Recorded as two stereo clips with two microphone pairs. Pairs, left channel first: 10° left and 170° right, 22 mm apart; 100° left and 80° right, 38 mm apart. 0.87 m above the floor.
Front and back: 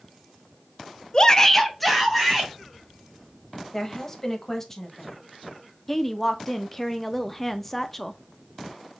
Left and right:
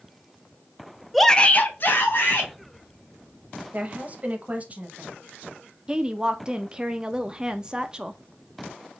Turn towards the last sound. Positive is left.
turn(degrees=-55)